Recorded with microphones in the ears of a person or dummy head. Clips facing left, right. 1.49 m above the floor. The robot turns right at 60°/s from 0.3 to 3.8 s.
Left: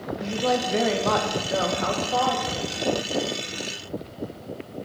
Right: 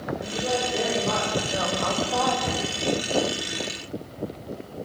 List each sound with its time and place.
0.2 s a woman speaking: 70° left, 1.4 m; by 2.4 s 170° right, 1.4 m
2.5 s a cupboard door: 45° right (ahead or behind), 0.7 m; by 2.7 s 55° right (ahead or behind), 0.7 m